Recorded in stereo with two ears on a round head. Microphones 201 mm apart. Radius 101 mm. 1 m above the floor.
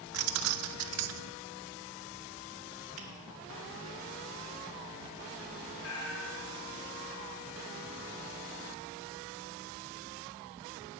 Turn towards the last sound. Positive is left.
turn(degrees=75)  # may be behind; listen again after turning